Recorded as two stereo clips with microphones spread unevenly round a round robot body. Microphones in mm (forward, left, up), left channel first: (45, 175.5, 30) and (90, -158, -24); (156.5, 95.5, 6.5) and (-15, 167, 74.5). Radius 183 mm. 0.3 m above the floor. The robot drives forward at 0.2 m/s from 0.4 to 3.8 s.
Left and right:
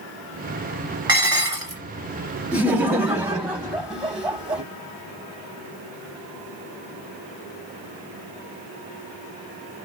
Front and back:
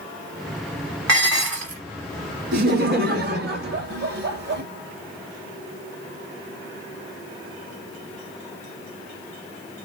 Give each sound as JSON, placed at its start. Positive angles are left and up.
{"t": 1.1, "sound": "dishes clattering", "azimuth_deg": -160, "distance_m": 2.0}
{"t": 2.5, "sound": "laughter", "azimuth_deg": -155, "distance_m": 1.1}